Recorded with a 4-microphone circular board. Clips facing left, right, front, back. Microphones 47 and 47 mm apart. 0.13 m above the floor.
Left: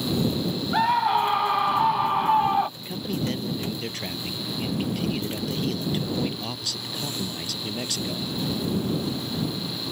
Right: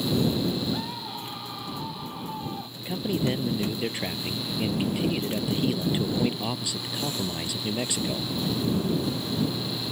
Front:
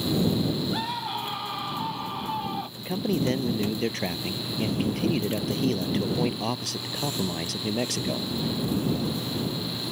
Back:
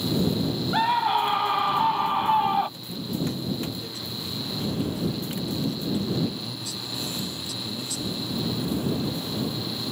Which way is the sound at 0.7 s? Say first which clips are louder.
Left 13 dB, back 8 dB; 125° left.